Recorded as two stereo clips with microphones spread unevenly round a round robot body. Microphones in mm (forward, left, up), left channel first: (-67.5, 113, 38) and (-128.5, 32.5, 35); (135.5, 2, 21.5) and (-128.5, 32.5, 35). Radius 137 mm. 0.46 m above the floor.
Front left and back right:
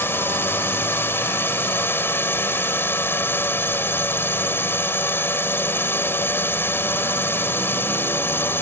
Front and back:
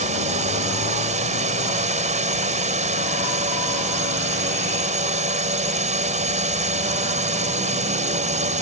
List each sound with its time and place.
0.0 s a drone: 115° left